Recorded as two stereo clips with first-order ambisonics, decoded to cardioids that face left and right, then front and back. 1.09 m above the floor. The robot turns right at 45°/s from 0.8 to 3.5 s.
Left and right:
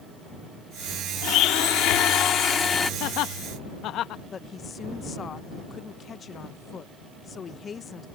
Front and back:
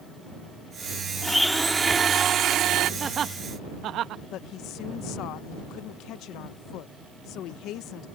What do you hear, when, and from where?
1.2 s a blender: 80° left; by 2.9 s 160° left
3.0 s laughter: 110° left; by 4.2 s 135° left
4.3 s a woman speaking: 25° left